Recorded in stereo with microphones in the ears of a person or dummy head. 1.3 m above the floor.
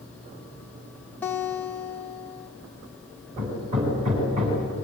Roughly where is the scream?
I don't hear a scream.